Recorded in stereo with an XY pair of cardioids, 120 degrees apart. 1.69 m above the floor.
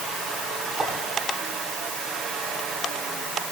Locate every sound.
0.8 s a clink: 30° right, 9 m